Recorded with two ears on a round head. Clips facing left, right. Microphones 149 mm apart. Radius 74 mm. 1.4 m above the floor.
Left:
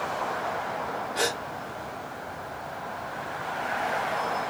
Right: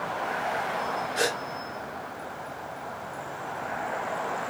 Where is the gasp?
25° right (ahead or behind), 2.5 m.